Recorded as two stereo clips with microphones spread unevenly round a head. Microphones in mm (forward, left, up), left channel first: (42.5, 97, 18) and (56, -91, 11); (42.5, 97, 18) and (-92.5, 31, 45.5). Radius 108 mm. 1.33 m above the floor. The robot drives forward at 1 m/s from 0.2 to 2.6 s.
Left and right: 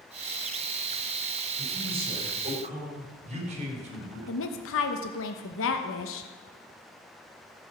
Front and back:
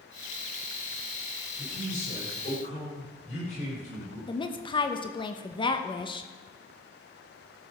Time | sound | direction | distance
1.6 | a man speaking | 25° right | 5 m
4.3 | a woman speaking | 85° left | 1.0 m